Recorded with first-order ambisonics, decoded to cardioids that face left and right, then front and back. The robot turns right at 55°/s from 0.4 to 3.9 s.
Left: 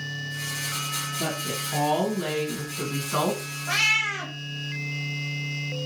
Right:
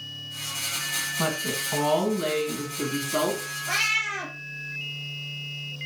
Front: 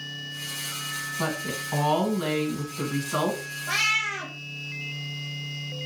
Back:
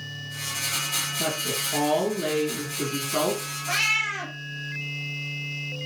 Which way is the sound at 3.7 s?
45° left.